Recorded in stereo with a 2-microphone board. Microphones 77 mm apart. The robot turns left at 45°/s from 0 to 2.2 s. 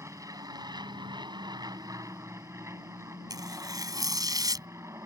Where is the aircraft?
40° right; by 5.1 s 140° right.